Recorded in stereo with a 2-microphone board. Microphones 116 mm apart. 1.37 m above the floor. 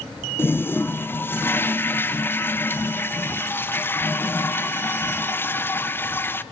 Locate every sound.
0.4 s a toilet flushing: 20° left (ahead or behind), 0.8 m